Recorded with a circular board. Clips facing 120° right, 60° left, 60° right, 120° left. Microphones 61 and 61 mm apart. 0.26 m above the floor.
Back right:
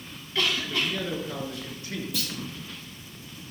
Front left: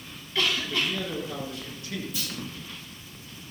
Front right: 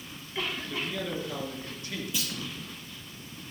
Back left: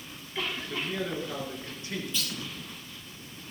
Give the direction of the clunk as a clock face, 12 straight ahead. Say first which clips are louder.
Back right 2 dB, even; 5 o'clock.